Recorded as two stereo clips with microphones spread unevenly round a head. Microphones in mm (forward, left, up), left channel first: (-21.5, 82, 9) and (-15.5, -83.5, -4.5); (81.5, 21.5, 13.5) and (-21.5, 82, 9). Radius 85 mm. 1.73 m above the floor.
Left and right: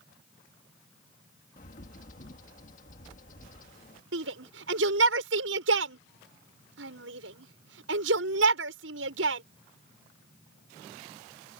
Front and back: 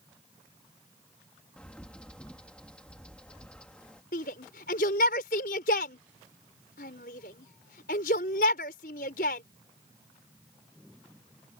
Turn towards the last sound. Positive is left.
turn(degrees=-65)